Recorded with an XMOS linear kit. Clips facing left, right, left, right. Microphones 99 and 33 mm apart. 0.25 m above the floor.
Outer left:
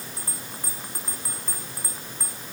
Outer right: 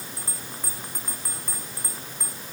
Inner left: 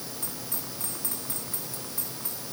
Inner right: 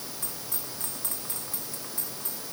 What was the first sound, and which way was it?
Only background noise.